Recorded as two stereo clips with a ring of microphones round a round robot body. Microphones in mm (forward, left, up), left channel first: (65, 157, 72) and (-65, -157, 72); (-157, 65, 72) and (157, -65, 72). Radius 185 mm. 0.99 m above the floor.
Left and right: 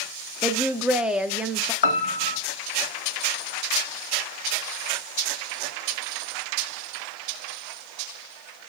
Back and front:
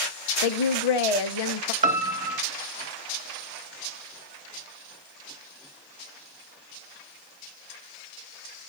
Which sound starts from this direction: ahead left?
A piano, at 1.8 s.